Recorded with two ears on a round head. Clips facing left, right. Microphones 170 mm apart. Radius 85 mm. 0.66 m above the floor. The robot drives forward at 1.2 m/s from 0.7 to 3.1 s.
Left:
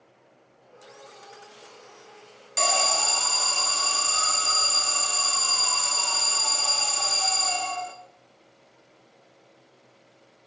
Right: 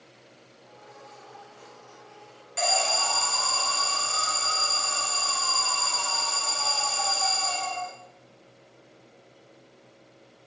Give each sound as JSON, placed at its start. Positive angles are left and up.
{"t": 2.6, "sound": "an alarm", "side_deg": 55, "distance_m": 0.9}